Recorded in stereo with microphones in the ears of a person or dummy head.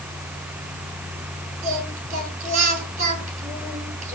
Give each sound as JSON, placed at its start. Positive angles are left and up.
{"t": 1.6, "sound": "singing", "side_deg": -45, "distance_m": 8.5}